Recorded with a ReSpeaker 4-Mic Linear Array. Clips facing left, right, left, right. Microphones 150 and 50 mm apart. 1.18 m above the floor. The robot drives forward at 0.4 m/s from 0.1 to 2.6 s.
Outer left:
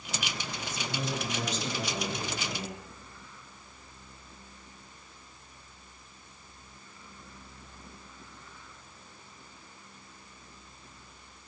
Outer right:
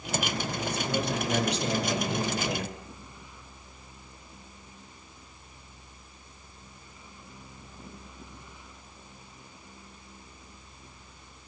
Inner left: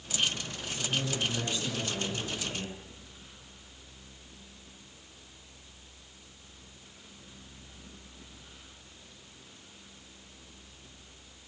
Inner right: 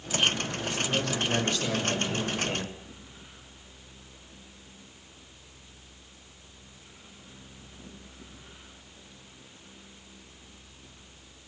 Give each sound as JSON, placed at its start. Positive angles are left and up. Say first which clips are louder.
{"t": 0.7, "sound": "a man speaking", "louder": "outer right 5 dB, inner right 3 dB", "side_deg": -65, "distance_m": 6.5}